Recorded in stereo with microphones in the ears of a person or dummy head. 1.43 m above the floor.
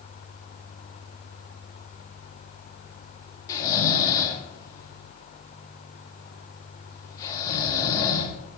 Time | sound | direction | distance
3.5 | snoring | 25° left (ahead or behind) | 1.0 m